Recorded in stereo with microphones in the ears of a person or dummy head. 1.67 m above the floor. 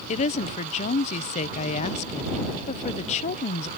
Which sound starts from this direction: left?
A woman speaking, at 0.1 s.